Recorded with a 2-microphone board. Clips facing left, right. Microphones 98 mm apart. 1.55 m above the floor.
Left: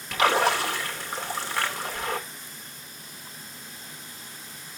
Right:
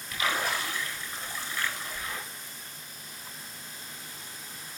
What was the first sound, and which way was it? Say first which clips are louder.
A splash: left 8 dB; 75° left (ahead or behind).